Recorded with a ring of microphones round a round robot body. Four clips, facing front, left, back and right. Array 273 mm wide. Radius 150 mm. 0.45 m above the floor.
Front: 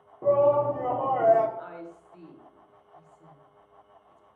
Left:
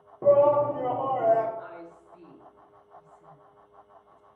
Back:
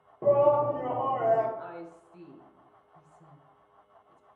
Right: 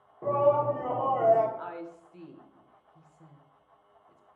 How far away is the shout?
About 0.8 m.